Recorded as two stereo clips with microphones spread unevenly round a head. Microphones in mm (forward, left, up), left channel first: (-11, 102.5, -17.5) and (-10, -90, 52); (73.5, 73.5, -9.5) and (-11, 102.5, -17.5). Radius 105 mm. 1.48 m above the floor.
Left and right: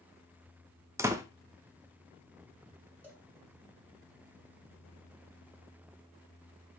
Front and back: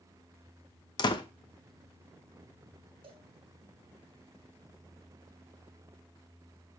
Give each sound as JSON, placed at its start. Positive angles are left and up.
{"t": 1.0, "sound": "a door slam", "azimuth_deg": -35, "distance_m": 0.8}
{"t": 3.0, "sound": "a cowbell", "azimuth_deg": -160, "distance_m": 2.5}